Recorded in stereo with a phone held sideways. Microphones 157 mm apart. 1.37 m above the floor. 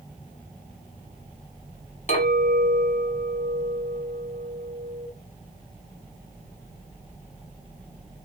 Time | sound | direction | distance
2.1 | a clink | 55° left (ahead or behind) | 1.4 m